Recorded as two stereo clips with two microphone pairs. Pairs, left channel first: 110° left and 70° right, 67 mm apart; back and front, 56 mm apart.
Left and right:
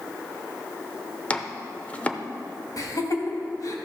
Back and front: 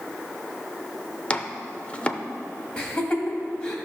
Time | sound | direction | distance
1.3 | chopping | 145° left | 0.7 m
2.8 | laughter | 105° left | 2 m